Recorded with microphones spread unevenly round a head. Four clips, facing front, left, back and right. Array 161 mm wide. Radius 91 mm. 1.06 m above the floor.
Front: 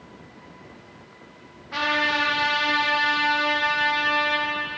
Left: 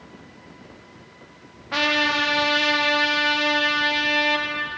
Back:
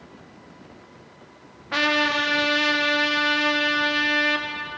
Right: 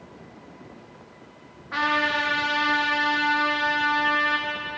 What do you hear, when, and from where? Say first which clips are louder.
1.7 s a trumpet: left 1 dB, back 2 dB; 155° left, 1.1 m